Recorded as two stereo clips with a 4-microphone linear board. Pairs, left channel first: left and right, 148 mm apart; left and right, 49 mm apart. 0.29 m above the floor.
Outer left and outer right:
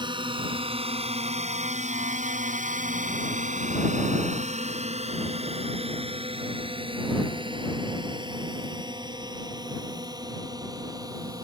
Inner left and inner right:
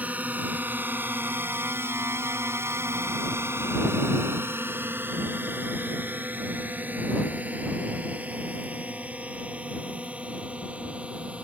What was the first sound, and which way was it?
A drone, 30° right (ahead or behind).